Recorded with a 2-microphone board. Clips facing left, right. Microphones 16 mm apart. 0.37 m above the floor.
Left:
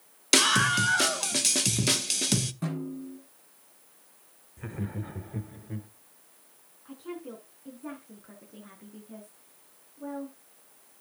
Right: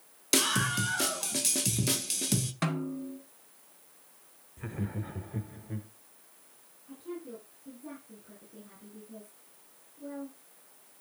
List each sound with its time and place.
0.3 s a scream: 35° left (ahead or behind), 1.1 m
2.6 s a snare drum: 65° right (ahead or behind), 3 m
4.6 s laughter: centre (ahead or behind), 0.8 m
6.8 s a woman speaking: 65° left (ahead or behind), 3.5 m